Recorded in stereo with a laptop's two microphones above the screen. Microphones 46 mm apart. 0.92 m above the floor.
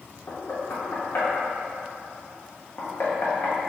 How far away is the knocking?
About 1.0 m.